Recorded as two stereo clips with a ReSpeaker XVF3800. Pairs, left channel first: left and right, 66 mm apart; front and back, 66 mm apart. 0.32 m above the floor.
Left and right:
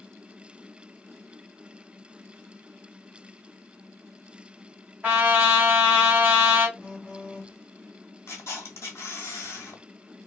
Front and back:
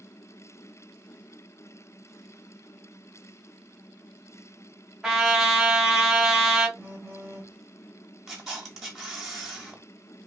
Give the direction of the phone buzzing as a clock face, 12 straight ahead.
5 o'clock.